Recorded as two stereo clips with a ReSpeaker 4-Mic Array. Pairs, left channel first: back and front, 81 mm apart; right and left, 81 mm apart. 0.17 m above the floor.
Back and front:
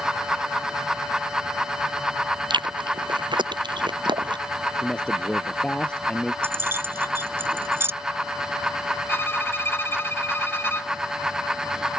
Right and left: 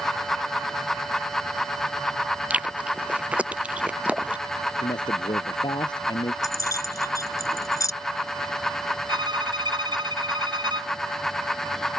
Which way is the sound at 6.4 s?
55° right.